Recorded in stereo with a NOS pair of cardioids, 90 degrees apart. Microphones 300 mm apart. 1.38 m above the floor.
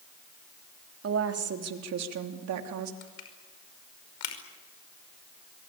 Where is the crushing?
70° left, 5.5 m.